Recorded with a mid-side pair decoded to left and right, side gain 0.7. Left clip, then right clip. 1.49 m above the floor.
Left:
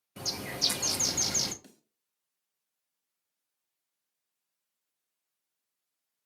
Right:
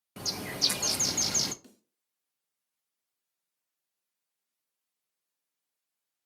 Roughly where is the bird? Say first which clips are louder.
Right 1 dB; ahead.